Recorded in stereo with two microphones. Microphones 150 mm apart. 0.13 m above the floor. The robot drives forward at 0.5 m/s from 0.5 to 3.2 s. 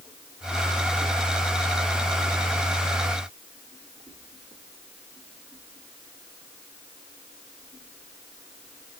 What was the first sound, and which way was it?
Only background noise.